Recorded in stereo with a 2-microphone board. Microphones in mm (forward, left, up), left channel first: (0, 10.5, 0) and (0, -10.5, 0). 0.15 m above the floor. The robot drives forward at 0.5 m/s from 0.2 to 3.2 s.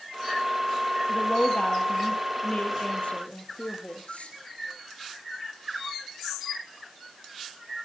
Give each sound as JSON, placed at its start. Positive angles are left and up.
{"t": 1.1, "sound": "a woman speaking", "side_deg": 70, "distance_m": 4.0}